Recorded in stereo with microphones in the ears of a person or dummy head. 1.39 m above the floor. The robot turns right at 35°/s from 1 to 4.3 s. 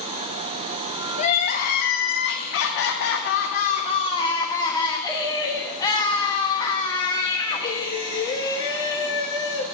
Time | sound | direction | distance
1.2 | crying | 50° left | 1.2 m